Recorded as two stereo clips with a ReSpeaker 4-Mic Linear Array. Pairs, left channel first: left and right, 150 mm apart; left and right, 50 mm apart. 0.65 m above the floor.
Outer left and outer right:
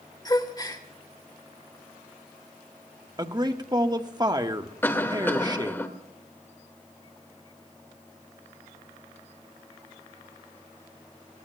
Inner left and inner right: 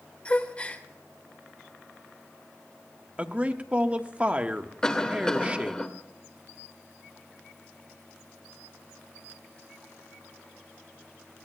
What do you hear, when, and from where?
0.2 s a gasp: 25° left (ahead or behind), 1.7 m
3.2 s a man speaking: 25° right (ahead or behind), 1.1 m
4.8 s a cough: 15° left (ahead or behind), 1.7 m